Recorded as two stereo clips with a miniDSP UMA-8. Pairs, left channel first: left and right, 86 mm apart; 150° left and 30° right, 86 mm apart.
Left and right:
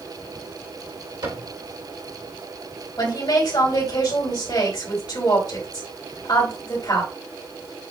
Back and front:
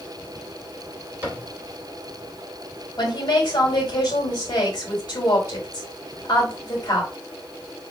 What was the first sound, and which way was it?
A cupboard door, 95° right.